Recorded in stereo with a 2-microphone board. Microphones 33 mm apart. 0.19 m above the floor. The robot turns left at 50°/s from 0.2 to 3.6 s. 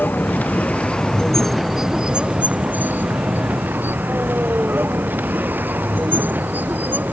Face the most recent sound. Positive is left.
turn(degrees=-70)  # may be behind; listen again after turning